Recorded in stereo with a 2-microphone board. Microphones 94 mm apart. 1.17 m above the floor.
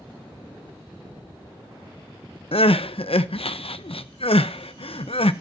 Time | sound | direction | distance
2.5 | crying | 75° left (ahead or behind) | 0.7 m